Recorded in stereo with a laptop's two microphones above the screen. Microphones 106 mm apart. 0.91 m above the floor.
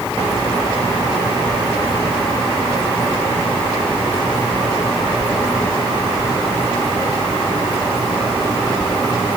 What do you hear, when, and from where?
Only background noise.